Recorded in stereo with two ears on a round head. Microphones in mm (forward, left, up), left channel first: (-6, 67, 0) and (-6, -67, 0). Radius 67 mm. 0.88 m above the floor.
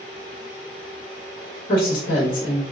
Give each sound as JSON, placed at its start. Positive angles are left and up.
{"t": 1.7, "sound": "a woman speaking", "side_deg": 55, "distance_m": 1.1}